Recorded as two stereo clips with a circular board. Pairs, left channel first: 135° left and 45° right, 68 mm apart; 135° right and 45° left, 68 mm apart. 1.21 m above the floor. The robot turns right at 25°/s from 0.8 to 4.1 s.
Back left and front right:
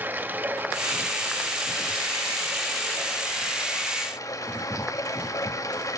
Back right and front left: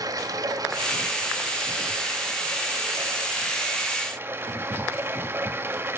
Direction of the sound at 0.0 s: 20° left.